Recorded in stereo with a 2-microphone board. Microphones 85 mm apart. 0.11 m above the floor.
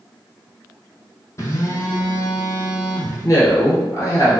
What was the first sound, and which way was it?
A phone buzzing, 35° left (ahead or behind).